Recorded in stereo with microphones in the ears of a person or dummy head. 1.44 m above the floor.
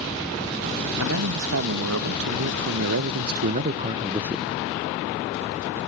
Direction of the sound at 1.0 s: 85° right.